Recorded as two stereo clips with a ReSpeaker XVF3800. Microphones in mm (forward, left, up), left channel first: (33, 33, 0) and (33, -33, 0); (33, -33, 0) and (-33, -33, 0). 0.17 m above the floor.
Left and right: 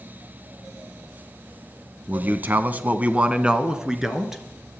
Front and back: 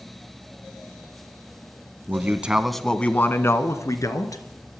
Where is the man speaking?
140° right, 1.3 m; by 4.4 s 5° right, 2.5 m.